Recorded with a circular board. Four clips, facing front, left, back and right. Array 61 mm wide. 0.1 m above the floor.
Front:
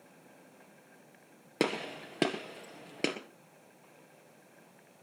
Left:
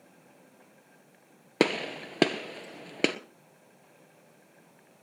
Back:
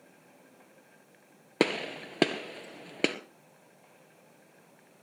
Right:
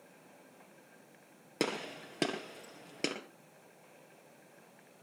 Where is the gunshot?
115° left, 1.7 m.